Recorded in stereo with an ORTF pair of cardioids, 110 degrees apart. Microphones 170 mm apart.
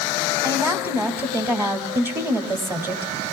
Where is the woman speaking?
15° right, 2 m.